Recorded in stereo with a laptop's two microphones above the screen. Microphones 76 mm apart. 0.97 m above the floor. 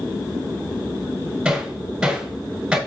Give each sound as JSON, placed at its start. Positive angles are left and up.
{"t": 1.4, "sound": "hammering", "side_deg": -5, "distance_m": 5.5}